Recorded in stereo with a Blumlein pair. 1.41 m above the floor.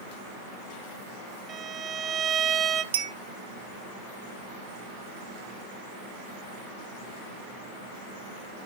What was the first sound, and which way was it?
A violin, 25° right.